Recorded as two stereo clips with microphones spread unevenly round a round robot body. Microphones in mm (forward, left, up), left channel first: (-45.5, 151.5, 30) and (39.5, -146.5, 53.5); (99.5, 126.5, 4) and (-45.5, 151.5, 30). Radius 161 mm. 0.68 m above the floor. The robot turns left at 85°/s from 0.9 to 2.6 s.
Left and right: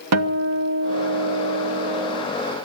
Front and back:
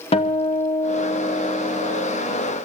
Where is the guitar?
45° right, 1.3 m; by 2.3 s 160° right, 1.3 m.